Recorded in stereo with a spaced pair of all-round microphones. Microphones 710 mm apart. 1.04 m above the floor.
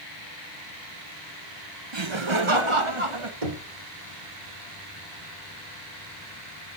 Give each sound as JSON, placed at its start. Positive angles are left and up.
{"t": 1.9, "sound": "laughter", "side_deg": -40, "distance_m": 0.8}
{"t": 3.4, "sound": "knocking", "side_deg": -55, "distance_m": 2.0}